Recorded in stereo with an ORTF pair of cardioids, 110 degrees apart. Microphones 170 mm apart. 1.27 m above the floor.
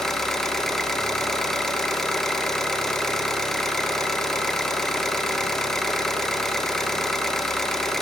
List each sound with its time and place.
0.0 s an engine running: straight ahead, 0.9 m